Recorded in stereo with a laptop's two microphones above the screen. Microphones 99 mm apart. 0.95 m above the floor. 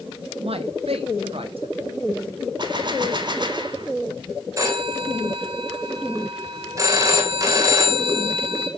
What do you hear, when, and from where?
0.4 s a man speaking: 70° right (ahead or behind), 1.0 m; by 1.8 s 65° right (ahead or behind), 1.7 m
2.6 s a gunshot: 50° right (ahead or behind), 2 m
4.6 s a phone ringing: 35° right (ahead or behind), 3.5 m